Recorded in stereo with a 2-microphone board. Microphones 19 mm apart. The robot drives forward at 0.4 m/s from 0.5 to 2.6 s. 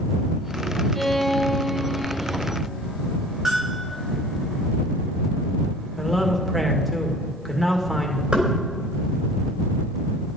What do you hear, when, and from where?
0.9 s a violin: 10° left (ahead or behind), 0.7 m; by 2.5 s 5° left (ahead or behind), 1.2 m
3.5 s a bell: 25° right (ahead or behind), 4.5 m
6.0 s a man speaking: centre (ahead or behind), 1.9 m
8.3 s knocking: 65° right (ahead or behind), 3.5 m